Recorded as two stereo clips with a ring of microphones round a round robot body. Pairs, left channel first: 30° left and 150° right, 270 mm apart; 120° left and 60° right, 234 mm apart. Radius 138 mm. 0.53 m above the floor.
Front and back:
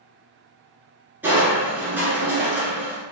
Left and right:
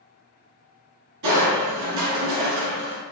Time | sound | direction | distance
1.2 | crushing | 65° right | 1.5 m